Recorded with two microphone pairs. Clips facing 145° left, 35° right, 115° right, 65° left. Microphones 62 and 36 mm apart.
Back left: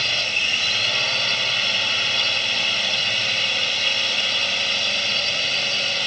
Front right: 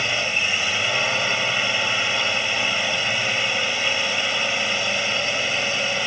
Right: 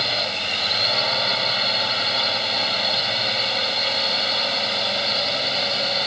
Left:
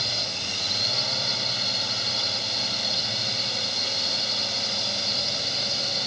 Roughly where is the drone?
Right.